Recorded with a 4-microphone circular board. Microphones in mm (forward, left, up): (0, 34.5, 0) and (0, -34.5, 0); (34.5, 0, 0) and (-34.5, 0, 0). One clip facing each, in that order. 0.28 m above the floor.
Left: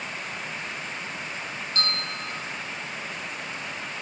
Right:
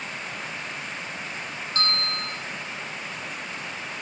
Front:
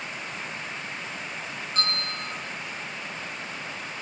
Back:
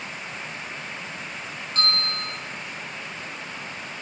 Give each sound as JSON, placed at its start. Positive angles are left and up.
{"t": 1.8, "sound": "a bell", "azimuth_deg": -85, "distance_m": 1.0}